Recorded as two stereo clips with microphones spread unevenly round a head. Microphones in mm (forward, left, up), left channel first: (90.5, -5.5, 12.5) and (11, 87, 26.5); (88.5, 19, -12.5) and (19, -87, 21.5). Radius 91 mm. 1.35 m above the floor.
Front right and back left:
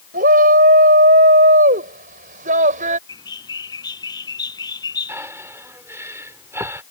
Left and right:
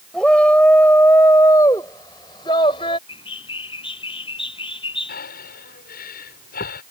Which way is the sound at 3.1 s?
5° left.